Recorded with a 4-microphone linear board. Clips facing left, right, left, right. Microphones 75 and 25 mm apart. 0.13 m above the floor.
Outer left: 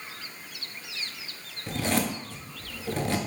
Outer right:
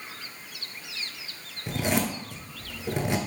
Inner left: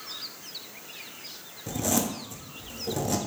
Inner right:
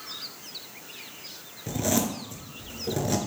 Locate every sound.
1.7 s a zipper: 20° right (ahead or behind), 0.7 m